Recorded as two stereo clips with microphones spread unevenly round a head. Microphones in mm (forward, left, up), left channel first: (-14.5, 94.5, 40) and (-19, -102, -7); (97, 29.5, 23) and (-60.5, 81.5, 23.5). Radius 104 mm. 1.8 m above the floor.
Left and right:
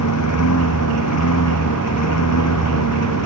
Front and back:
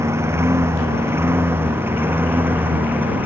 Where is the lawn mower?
90° left; by 3.3 s 85° left.